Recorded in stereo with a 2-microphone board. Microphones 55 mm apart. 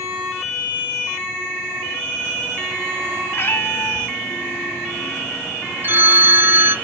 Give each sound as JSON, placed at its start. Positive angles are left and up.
{"t": 3.3, "sound": "a cat meowing", "side_deg": 35, "distance_m": 2.5}
{"t": 5.8, "sound": "a phone ringing", "side_deg": -35, "distance_m": 1.0}